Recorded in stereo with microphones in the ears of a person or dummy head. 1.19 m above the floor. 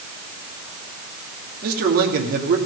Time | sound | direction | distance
1.6 | a man speaking | 55° right (ahead or behind) | 2.5 m